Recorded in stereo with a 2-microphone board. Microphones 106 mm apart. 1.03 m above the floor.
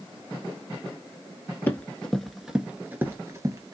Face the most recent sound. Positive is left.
turn(degrees=-35)  # may be behind; listen again after turning